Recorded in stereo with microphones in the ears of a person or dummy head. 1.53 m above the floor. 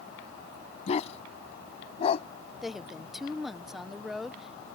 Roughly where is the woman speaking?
Centre.